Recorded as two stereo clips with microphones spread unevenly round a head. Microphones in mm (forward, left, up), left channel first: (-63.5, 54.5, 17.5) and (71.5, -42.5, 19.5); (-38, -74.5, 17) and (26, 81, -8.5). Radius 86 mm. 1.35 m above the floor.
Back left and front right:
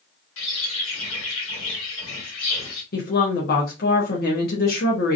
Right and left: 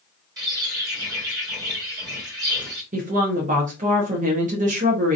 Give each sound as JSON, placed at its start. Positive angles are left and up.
{"t": 0.4, "sound": "a bird", "azimuth_deg": 140, "distance_m": 1.6}
{"t": 2.9, "sound": "a woman speaking", "azimuth_deg": 110, "distance_m": 0.9}